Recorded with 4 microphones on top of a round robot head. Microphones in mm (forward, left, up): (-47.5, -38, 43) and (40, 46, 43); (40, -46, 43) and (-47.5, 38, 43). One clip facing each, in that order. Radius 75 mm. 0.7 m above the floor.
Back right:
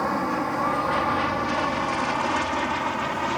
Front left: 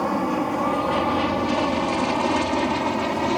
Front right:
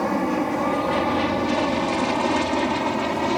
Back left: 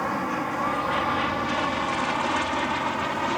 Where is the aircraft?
20° right; by 3.4 s straight ahead.